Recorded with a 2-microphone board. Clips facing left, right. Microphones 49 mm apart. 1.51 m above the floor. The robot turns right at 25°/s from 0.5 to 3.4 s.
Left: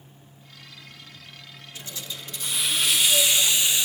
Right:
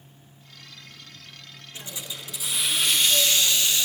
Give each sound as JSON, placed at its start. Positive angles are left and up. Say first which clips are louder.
{"t": 1.8, "sound": "a hiss", "louder": "even", "azimuth_deg": -25, "distance_m": 1.0}